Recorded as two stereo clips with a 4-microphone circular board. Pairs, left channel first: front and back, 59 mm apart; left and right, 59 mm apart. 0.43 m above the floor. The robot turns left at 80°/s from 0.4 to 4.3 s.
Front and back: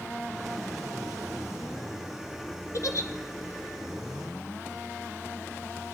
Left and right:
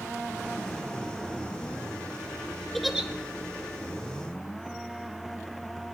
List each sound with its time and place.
2.7 s a giggle: 5° left, 1.2 m; by 3.1 s 25° right, 1.2 m